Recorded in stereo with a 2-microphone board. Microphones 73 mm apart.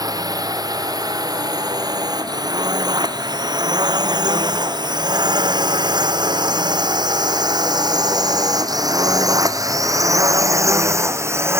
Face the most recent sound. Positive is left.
turn(degrees=-35)  # may be behind; listen again after turning